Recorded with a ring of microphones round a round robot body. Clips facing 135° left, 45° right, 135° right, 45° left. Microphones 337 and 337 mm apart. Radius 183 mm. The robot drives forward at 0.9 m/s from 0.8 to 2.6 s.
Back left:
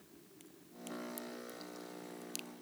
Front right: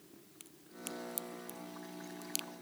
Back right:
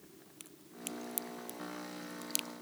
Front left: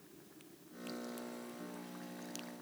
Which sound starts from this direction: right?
A crack, at 0.4 s.